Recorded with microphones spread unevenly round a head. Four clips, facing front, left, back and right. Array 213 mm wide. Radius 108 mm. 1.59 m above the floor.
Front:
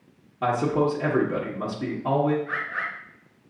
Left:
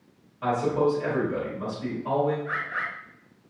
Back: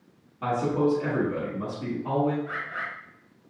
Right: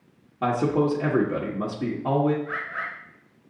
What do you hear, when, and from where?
0.4 s a man speaking: 70° right, 1.0 m
2.5 s a bird: 100° left, 1.7 m